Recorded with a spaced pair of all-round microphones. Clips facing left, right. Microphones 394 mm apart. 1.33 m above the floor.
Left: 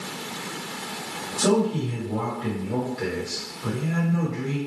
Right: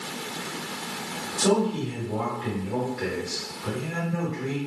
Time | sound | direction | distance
1.4 | a man speaking | 50° left (ahead or behind) | 1.1 m